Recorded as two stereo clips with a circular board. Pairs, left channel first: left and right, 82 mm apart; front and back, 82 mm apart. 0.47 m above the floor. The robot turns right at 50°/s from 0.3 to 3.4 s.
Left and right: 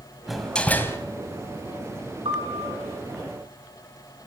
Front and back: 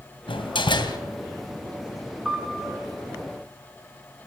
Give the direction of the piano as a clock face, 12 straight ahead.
3 o'clock.